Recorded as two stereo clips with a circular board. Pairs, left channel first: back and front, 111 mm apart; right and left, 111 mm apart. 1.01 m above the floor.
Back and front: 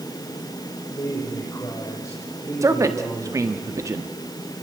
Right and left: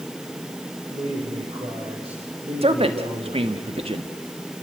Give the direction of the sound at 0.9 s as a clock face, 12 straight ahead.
8 o'clock.